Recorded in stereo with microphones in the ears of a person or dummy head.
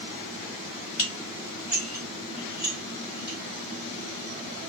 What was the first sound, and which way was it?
Dishes clattering, 35° left (ahead or behind).